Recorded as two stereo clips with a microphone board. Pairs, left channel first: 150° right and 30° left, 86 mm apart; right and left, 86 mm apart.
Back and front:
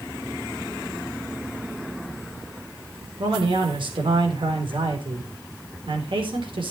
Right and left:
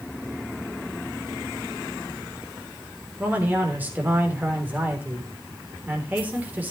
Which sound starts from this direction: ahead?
A man speaking, at 3.2 s.